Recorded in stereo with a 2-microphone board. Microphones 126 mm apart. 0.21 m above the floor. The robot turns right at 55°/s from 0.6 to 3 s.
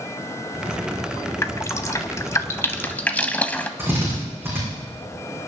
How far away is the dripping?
About 0.8 m.